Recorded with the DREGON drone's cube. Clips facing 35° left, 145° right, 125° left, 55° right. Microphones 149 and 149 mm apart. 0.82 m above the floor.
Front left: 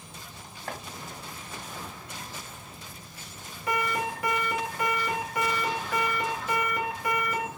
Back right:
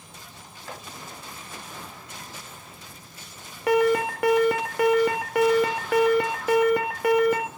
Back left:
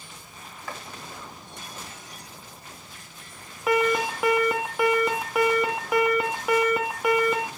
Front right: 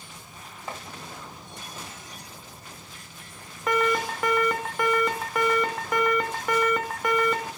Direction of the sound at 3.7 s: 150° right.